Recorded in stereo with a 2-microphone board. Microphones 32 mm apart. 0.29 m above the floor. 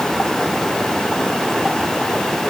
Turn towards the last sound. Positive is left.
No sound to turn to.